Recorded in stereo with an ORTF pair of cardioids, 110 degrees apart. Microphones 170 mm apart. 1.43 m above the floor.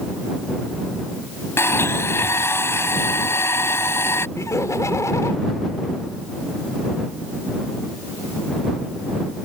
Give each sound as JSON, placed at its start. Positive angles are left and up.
{"t": 1.6, "sound": "a blender", "azimuth_deg": 15}
{"t": 4.4, "sound": "laughter", "azimuth_deg": 20}